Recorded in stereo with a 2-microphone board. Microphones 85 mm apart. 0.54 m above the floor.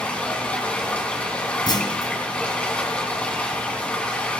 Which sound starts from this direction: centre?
Running water, at 0.0 s.